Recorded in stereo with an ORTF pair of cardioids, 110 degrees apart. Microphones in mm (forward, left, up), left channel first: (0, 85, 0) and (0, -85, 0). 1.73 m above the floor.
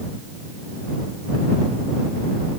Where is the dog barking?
I don't hear a dog barking.